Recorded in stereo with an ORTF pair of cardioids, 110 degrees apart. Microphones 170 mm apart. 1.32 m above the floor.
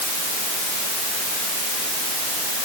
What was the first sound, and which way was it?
Only background noise.